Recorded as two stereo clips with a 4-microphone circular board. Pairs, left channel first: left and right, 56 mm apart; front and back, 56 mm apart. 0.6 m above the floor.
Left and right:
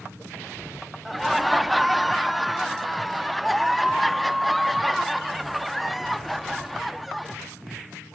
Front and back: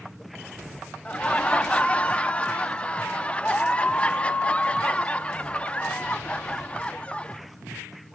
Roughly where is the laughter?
Ahead.